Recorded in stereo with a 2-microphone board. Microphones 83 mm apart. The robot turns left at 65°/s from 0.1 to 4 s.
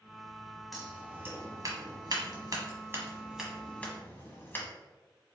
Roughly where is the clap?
I don't hear a clap.